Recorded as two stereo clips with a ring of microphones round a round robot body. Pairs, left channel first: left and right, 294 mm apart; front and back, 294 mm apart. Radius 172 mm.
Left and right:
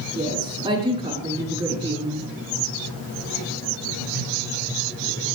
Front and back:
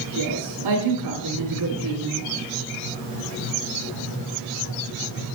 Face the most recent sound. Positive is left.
turn(degrees=-160)